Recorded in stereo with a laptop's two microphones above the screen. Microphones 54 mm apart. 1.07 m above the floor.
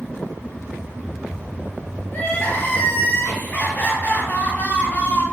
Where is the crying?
35° left (ahead or behind), 0.5 m.